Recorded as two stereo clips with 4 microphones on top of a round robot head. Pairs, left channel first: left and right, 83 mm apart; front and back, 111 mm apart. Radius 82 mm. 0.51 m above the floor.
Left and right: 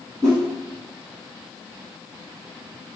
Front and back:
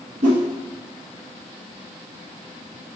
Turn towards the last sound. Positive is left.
turn(degrees=-160)